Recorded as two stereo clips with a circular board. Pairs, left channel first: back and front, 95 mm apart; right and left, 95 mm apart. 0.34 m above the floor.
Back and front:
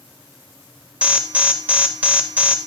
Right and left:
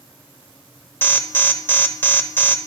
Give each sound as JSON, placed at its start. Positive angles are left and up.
{"t": 1.0, "sound": "an alarm", "azimuth_deg": -55, "distance_m": 0.6}